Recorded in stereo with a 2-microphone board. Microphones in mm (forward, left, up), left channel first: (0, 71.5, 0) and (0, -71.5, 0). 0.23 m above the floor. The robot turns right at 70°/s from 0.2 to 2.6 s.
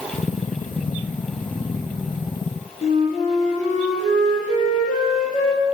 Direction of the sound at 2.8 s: 65° left (ahead or behind).